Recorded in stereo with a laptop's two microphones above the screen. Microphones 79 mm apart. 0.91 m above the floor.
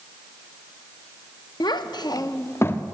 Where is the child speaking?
70° left (ahead or behind), 0.6 m; by 2.8 s 30° left (ahead or behind), 0.8 m.